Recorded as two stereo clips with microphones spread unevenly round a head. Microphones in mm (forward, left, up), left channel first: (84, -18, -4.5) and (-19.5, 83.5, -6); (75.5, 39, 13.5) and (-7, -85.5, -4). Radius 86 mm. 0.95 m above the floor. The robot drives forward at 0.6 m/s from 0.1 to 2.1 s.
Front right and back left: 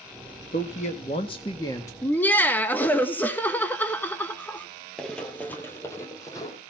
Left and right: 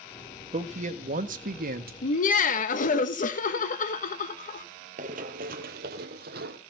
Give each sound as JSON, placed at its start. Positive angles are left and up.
{"t": 0.5, "sound": "a man speaking", "azimuth_deg": -85, "distance_m": 1.5}
{"t": 2.0, "sound": "laughter", "azimuth_deg": 30, "distance_m": 1.3}
{"t": 5.0, "sound": "running footsteps", "azimuth_deg": -130, "distance_m": 1.1}